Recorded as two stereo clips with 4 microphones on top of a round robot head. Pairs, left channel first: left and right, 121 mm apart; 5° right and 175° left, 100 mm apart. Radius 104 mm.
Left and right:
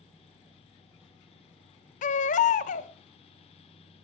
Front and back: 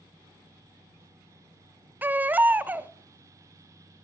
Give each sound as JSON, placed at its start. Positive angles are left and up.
{"t": 2.0, "sound": "a baby crying", "azimuth_deg": 105, "distance_m": 0.6}